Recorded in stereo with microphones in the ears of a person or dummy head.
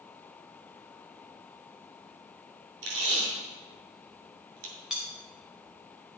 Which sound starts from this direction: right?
Tape being pulled, at 2.8 s.